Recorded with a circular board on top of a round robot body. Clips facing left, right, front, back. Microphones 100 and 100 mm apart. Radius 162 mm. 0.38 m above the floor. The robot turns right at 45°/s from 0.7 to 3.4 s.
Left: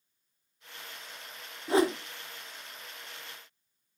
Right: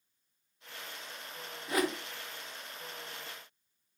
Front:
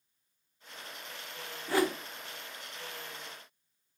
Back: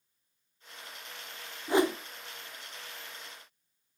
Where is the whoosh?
120° left, 0.6 m; by 2.0 s 135° left, 0.6 m.